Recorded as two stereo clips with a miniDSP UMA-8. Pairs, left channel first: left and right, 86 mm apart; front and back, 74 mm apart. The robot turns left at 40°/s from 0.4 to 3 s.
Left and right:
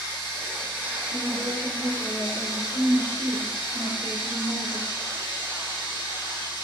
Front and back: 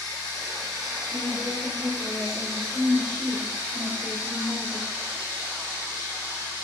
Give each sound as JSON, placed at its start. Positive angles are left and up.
{"t": 0.0, "sound": "running water", "azimuth_deg": -140, "distance_m": 2.0}
{"t": 1.1, "sound": "a woman speaking", "azimuth_deg": -35, "distance_m": 1.2}